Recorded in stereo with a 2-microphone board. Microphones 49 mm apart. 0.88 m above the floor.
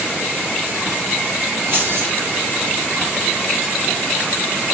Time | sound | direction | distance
1.7 | keys jangling | 60° right (ahead or behind) | 3.5 m